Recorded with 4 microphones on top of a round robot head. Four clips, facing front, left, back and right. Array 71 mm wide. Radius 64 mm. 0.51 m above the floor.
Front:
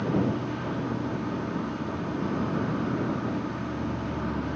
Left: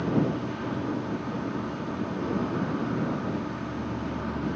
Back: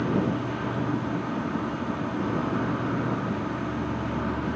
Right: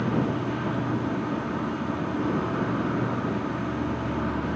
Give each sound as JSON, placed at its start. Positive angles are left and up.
{"t": 0.0, "sound": "an insect", "azimuth_deg": -125}